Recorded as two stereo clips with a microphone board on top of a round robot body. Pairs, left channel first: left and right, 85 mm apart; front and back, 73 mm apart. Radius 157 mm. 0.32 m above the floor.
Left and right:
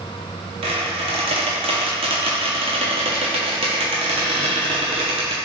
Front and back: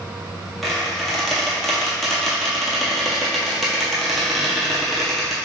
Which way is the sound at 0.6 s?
90° right.